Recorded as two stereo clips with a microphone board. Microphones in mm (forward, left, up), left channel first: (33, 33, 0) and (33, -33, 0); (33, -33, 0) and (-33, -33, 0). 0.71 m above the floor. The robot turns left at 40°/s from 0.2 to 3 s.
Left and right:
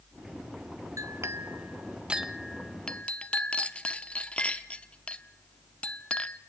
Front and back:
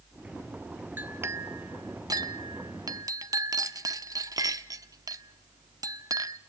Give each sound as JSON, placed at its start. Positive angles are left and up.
{"t": 1.0, "sound": "a clink", "azimuth_deg": -120, "distance_m": 0.6}